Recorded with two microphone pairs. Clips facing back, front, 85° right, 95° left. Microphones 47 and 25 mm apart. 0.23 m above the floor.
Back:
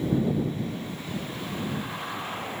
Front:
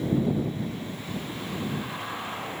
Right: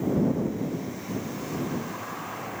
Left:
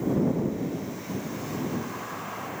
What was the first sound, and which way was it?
Only background noise.